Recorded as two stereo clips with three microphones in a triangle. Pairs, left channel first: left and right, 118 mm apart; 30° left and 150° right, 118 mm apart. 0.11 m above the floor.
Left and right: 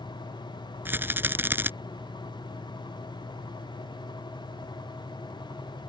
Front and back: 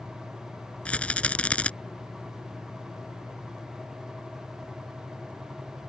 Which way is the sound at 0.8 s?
40° right.